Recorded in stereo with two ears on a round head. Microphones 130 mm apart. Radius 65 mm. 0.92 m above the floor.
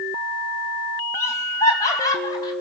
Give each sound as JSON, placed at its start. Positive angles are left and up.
{"t": 1.1, "sound": "laughter", "side_deg": 20, "distance_m": 4.5}